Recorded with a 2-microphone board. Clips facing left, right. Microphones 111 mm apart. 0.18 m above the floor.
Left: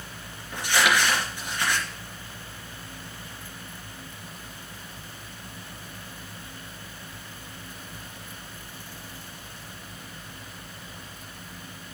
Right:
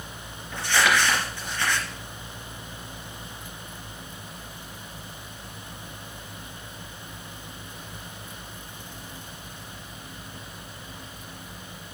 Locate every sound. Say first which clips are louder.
0.5 s crumpling: right 1 dB; 15° left (ahead or behind), 3 m